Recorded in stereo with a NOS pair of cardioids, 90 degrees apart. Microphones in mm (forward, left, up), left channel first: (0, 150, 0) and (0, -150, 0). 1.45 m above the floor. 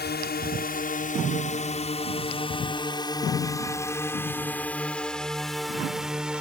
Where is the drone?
35° left; by 6.4 s 5° right.